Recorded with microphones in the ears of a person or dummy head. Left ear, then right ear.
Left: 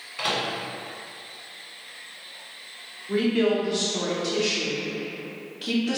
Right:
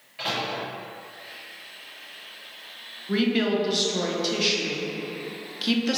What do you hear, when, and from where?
0.2 s a microwave: 40° left (ahead or behind), 0.9 m
3.1 s a woman speaking: 30° right (ahead or behind), 0.6 m